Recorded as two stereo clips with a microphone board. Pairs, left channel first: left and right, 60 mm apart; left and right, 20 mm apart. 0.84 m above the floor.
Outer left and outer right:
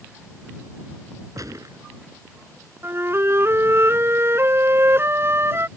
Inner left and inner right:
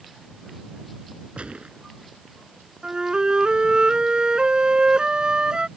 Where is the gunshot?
80° right.